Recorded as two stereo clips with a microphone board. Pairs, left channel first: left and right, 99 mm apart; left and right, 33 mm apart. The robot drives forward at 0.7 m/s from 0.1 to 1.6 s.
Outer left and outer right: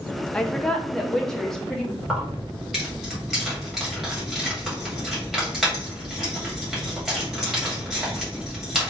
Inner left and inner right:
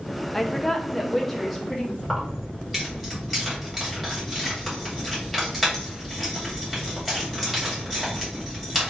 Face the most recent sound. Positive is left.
turn(degrees=-5)  # may be behind; listen again after turning